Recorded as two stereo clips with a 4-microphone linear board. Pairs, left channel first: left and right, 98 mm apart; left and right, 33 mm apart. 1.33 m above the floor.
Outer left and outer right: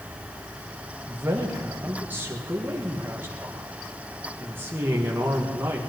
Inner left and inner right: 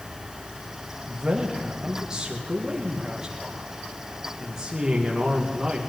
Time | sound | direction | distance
1.1 | a man speaking | 20° right (ahead or behind) | 1.8 m